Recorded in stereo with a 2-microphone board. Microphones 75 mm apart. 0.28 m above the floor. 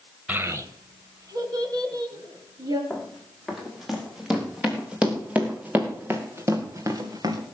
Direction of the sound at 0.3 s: 20° right (ahead or behind).